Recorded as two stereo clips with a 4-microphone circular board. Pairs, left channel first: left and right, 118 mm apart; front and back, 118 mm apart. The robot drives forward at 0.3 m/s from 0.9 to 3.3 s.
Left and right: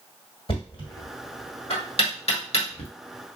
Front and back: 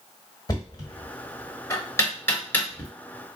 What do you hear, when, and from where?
0.5 s knocking: 50° left, 1.6 m; by 2.9 s 75° left, 1.3 m